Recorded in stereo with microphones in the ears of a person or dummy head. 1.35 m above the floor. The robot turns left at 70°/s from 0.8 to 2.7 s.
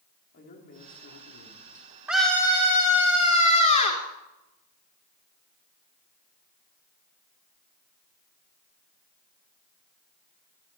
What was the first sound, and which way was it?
A man speaking, 135° left.